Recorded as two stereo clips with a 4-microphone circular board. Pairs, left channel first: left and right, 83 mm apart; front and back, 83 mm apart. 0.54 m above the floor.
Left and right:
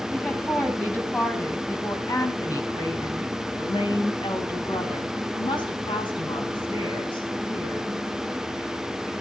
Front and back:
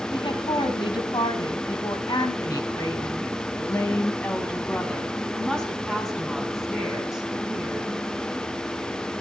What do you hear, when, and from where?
0.1 s a woman speaking: 15° left, 4 m; by 7.9 s 100° left, 5.5 m